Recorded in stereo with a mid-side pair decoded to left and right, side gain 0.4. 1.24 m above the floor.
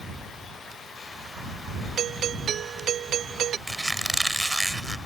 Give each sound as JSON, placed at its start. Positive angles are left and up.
{"t": 2.0, "sound": "a doorbell", "azimuth_deg": -70}
{"t": 3.7, "sound": "a squeak", "azimuth_deg": -15}